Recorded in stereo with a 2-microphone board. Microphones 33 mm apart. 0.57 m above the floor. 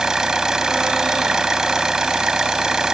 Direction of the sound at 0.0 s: 20° right (ahead or behind).